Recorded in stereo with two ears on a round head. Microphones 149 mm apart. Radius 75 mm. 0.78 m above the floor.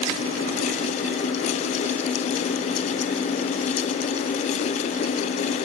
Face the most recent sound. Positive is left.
No sound to turn to.